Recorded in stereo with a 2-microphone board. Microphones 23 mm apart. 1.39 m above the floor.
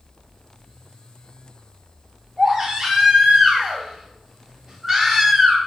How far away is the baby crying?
About 1.3 m.